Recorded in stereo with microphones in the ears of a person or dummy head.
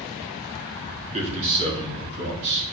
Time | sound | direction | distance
1.1 | a man speaking | 35° right (ahead or behind) | 3.5 m